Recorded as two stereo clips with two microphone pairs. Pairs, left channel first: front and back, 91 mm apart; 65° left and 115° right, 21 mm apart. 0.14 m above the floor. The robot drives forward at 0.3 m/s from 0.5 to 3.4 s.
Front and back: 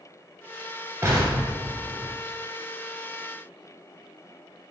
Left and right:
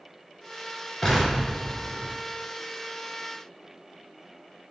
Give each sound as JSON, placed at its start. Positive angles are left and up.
{"t": 1.0, "sound": "an explosion", "azimuth_deg": 135, "distance_m": 1.3}